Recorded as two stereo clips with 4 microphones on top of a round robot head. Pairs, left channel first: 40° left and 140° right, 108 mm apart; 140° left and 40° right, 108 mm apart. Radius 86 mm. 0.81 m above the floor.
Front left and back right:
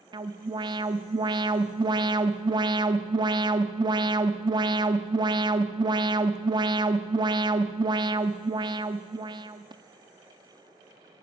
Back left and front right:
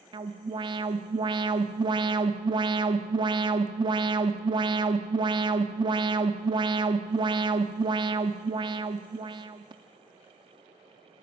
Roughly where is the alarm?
Right.